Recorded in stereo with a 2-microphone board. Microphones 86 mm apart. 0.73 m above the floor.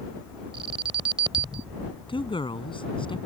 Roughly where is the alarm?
Right.